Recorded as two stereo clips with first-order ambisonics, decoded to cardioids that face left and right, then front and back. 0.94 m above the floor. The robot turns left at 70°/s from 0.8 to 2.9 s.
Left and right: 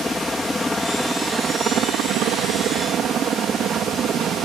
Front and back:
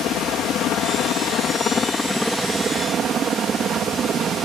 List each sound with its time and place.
0.0 s a helicopter: 15° left; by 4.5 s 130° right